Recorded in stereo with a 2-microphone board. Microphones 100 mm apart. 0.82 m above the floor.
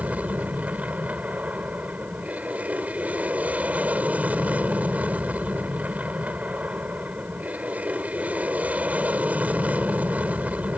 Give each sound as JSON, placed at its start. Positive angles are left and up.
{"t": 0.0, "sound": "an aircraft", "side_deg": -15}